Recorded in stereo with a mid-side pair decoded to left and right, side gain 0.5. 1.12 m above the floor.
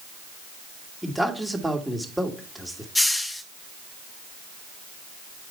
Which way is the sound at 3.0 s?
10° left.